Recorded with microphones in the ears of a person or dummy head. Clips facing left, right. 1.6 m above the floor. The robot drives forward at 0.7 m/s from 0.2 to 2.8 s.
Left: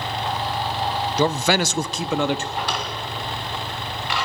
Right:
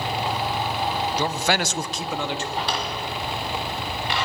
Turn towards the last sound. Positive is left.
turn(degrees=-25)  # may be behind; listen again after turning